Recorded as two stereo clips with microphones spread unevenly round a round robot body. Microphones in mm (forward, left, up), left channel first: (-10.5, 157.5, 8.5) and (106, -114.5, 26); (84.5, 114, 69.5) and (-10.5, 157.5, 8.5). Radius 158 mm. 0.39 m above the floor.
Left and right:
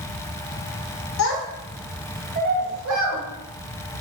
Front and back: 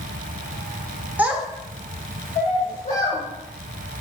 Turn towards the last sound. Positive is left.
turn(degrees=-55)